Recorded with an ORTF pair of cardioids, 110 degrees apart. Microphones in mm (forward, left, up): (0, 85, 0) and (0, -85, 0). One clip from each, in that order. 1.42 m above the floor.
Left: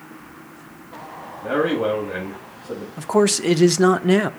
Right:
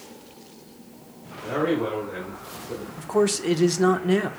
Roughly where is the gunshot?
I don't hear a gunshot.